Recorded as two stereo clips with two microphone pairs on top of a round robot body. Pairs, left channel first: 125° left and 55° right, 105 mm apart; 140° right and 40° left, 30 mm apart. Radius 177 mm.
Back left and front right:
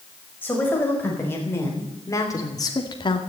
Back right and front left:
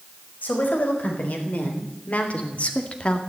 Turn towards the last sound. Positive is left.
turn(degrees=165)